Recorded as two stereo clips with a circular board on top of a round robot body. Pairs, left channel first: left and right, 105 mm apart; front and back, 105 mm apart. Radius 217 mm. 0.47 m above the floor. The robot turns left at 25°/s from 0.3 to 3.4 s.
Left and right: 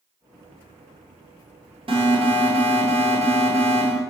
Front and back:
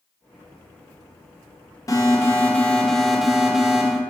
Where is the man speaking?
I don't hear a man speaking.